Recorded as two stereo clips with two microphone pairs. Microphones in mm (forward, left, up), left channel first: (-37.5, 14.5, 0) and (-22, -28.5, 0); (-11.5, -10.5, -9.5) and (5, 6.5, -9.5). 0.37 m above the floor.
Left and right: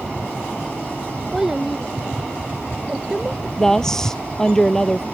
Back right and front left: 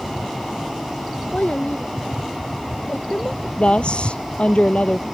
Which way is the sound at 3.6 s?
170° right.